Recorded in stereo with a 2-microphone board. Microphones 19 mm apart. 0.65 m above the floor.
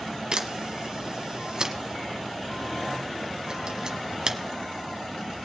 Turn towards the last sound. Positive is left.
turn(degrees=-45)  # may be behind; listen again after turning